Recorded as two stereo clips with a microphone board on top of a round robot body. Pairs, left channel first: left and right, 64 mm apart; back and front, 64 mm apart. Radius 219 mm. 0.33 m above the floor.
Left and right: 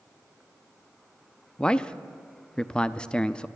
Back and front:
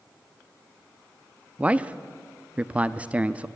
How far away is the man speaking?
About 1.0 m.